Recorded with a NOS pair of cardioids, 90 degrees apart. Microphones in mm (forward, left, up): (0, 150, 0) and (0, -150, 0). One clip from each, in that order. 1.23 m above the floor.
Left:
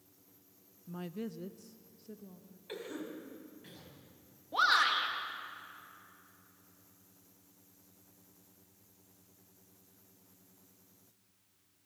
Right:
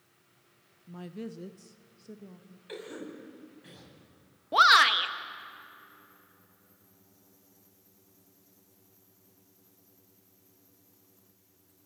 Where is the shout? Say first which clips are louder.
Right 8 dB; 55° right, 1.6 m.